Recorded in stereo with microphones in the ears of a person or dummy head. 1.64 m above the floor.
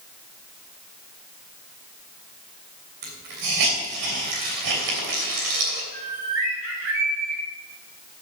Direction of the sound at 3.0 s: 70° right (ahead or behind).